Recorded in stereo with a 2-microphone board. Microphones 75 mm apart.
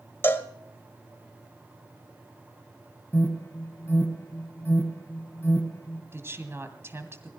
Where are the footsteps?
No footsteps in this recording.